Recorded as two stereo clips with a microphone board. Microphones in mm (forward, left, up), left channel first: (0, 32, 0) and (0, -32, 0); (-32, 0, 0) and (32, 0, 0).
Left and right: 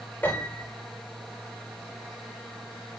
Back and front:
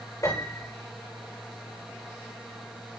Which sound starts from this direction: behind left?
A piano, at 0.2 s.